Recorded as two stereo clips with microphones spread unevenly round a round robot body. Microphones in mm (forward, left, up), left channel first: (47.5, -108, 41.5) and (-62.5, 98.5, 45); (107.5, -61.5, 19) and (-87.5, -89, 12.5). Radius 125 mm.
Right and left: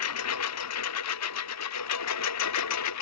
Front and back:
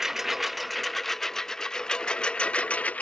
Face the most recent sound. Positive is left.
turn(degrees=-75)